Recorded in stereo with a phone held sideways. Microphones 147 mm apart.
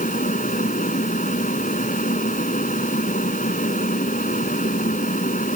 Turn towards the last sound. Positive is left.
turn(degrees=65)  # may be behind; listen again after turning